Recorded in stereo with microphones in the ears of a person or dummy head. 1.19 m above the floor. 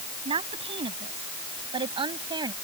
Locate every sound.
0.2 s a woman speaking: 35° right (ahead or behind); by 2.5 s 25° right (ahead or behind)